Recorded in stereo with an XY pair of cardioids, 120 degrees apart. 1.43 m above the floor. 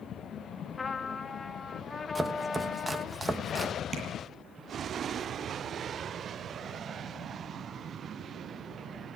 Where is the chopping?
20° right, 1.6 m.